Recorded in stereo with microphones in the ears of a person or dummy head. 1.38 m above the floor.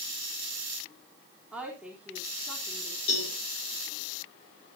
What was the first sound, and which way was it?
A woman speaking, 5° right (ahead or behind).